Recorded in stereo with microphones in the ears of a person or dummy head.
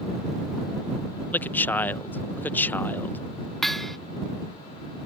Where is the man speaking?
10° left (ahead or behind).